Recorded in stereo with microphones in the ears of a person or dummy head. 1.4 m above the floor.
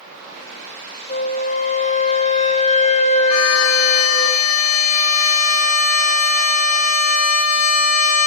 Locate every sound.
1.1 s a flute: 35° left (ahead or behind), 1.7 m
3.3 s a violin: 80° left, 1.9 m